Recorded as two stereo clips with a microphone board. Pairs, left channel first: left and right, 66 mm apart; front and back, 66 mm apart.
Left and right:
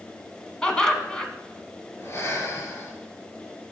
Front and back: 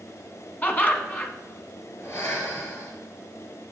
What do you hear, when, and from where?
0.6 s laughter: 20° left, 1.3 m
2.0 s breathing: 45° left, 2.5 m